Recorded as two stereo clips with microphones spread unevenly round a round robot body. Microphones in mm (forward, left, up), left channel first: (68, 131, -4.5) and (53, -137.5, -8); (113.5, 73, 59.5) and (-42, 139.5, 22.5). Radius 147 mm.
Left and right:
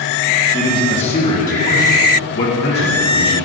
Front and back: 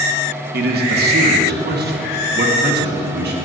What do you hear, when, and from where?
0.5 s a man speaking: 165° left, 1.3 m; by 3.4 s 145° left, 3 m